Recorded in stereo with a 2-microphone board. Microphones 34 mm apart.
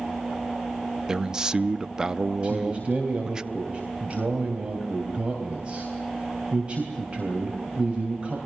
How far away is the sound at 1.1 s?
About 0.6 m.